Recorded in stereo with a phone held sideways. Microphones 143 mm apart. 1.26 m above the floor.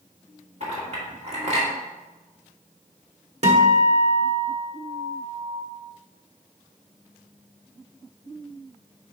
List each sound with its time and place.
0.6 s a clink: 50° right (ahead or behind), 1.9 m
3.4 s a guitar: 50° right (ahead or behind), 1.2 m